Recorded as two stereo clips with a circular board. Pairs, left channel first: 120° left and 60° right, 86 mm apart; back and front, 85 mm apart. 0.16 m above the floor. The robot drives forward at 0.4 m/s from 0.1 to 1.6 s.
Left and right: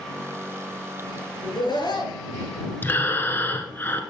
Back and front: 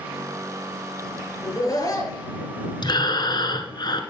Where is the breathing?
Straight behind, 1.3 m.